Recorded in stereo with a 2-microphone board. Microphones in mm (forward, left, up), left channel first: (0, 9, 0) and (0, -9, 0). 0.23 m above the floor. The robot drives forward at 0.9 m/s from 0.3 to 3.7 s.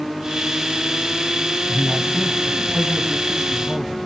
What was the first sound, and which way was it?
A man speaking, 30° left (ahead or behind).